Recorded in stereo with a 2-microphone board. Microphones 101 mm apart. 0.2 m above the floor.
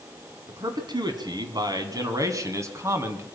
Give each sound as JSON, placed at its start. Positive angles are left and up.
{"t": 0.5, "sound": "a man speaking", "side_deg": -50, "distance_m": 2.0}